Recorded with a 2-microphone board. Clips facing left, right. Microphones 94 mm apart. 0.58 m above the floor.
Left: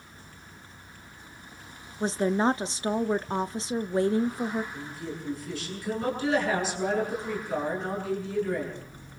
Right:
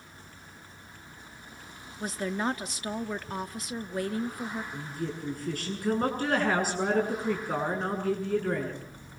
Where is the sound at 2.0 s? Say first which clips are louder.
Left 6 dB; 25° left (ahead or behind), 0.6 m.